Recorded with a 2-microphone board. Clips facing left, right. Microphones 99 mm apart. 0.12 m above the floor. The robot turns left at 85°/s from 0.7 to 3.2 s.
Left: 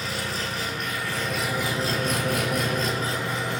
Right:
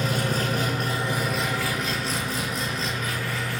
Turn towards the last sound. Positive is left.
turn(degrees=25)